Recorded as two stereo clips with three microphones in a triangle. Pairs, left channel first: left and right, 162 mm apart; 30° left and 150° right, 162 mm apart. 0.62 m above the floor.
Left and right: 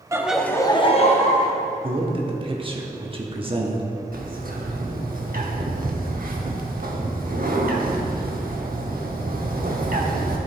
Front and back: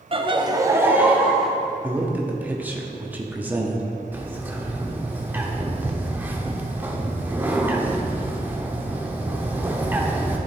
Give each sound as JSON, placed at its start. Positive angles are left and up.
{"t": 0.1, "sound": "laughter", "azimuth_deg": -145, "distance_m": 0.7}
{"t": 1.8, "sound": "a man speaking", "azimuth_deg": -80, "distance_m": 1.0}
{"t": 4.1, "sound": "a bird", "azimuth_deg": -70, "distance_m": 0.9}